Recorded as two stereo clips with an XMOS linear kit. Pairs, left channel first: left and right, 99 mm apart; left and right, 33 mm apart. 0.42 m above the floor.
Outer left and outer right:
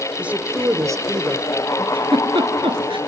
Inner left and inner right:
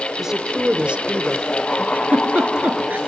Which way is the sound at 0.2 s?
10° right (ahead or behind).